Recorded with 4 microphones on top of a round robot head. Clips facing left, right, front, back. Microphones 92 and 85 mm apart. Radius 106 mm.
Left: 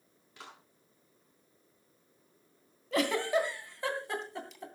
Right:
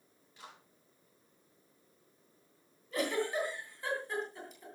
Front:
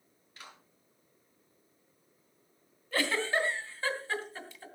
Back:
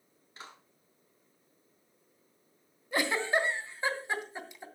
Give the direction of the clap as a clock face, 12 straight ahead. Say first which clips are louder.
Left 2 dB, back 3 dB; 8 o'clock.